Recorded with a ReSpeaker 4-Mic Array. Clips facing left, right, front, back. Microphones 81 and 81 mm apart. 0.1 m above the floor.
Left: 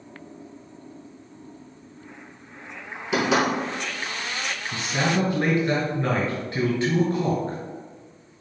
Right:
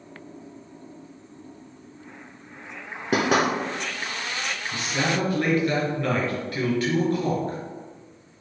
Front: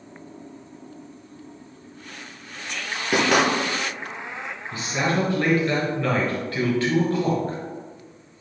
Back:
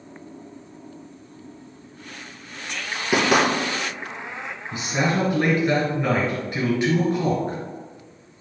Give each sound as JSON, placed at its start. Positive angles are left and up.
{"t": 3.1, "sound": "knocking", "azimuth_deg": -95, "distance_m": 1.2}
{"t": 4.7, "sound": "a man speaking", "azimuth_deg": 125, "distance_m": 1.4}